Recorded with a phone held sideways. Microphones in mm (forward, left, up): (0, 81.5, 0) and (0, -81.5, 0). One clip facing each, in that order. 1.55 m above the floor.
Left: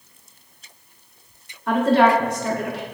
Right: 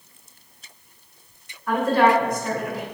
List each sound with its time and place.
1.7 s a woman speaking: 75° left (ahead or behind), 0.7 m